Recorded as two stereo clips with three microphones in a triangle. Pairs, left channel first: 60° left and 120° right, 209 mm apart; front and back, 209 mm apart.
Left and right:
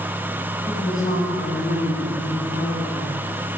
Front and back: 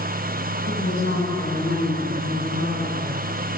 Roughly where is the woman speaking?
Ahead.